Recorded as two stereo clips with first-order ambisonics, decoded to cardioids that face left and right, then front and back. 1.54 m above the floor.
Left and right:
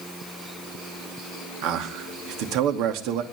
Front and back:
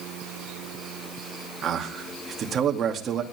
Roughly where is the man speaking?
Behind right.